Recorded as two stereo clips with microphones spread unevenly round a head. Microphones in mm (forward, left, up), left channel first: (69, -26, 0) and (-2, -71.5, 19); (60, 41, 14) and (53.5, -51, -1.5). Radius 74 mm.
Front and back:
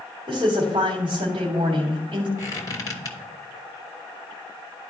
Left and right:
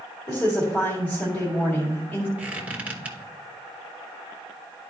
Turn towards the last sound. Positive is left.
turn(degrees=-15)